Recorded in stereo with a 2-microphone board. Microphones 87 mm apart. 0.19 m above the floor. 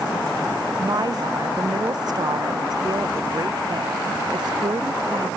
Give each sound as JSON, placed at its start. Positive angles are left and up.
{"t": 0.8, "sound": "a woman speaking", "side_deg": -50}